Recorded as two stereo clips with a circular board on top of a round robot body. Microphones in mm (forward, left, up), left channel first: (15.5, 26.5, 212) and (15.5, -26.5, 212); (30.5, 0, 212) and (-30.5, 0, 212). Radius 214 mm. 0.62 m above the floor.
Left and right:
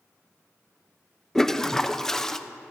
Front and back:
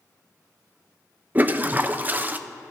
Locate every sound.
1.4 s a toilet flushing: 160° left, 1.0 m